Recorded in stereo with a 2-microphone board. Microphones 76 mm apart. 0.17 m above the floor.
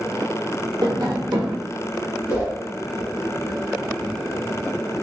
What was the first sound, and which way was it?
Tapping, 65° right (ahead or behind).